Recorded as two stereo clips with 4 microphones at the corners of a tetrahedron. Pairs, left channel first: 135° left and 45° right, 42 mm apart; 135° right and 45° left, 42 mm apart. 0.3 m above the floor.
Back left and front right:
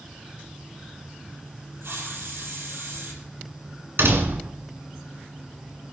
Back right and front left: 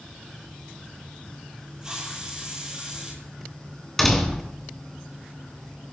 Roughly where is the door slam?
Ahead right.